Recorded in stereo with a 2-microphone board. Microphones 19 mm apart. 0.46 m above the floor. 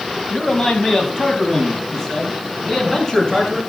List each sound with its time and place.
0.3 s a man speaking: 35° left (ahead or behind), 4 m; by 3.6 s 15° left (ahead or behind), 7 m